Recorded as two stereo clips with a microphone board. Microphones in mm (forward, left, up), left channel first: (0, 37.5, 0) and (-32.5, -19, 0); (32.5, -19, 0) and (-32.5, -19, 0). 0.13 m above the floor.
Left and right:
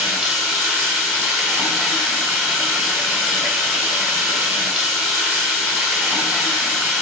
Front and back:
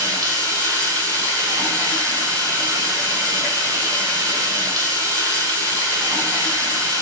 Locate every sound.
0.0 s running water: 165° left, 3.5 m